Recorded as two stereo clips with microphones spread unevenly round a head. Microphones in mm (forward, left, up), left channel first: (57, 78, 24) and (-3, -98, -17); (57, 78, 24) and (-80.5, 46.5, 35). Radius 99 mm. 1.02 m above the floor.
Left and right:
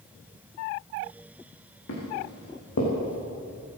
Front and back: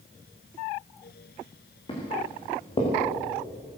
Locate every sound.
1.9 s footsteps: 70° left, 5.5 m; by 2.9 s 65° left, 5 m